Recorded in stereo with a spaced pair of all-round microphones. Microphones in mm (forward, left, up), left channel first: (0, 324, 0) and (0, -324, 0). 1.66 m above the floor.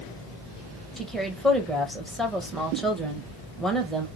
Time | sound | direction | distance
1.0 | a woman speaking | centre (ahead or behind) | 1.5 m